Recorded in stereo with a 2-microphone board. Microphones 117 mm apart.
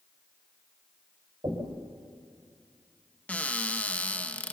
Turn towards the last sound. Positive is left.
turn(degrees=15)  # may be behind; listen again after turning